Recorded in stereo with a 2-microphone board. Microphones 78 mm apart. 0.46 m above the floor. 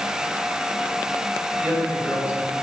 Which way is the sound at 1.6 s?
25° right (ahead or behind).